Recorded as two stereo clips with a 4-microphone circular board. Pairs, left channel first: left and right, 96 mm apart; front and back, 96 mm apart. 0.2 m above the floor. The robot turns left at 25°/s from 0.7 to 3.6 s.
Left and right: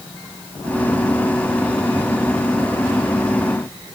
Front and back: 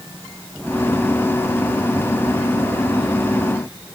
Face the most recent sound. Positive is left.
No sound to turn to.